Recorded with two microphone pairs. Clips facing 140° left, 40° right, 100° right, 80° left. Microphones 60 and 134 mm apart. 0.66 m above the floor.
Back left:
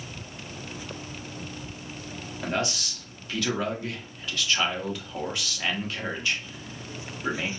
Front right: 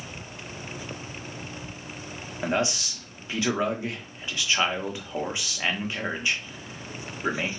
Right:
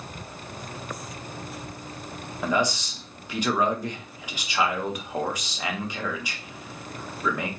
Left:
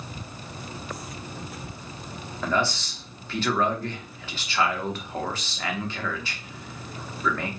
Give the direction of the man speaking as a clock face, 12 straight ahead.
2 o'clock.